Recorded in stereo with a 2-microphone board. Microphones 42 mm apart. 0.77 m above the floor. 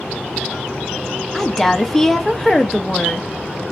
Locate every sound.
1.3 s a woman speaking: 10° left (ahead or behind), 0.5 m